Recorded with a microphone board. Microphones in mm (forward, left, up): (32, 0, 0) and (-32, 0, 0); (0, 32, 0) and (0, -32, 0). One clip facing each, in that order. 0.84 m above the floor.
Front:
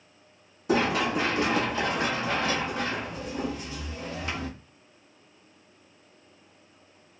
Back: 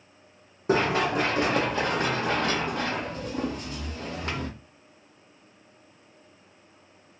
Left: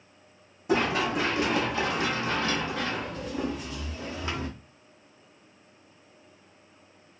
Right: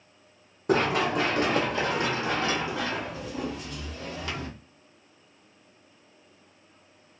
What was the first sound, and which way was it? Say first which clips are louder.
Running footsteps: back 1 dB, right 2 dB; 130° right.